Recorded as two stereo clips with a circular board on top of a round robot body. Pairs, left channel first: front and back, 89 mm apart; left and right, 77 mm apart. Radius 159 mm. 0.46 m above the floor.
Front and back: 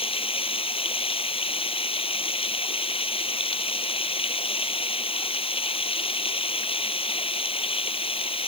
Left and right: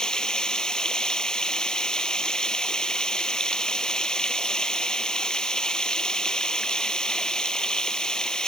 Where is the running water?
10° left.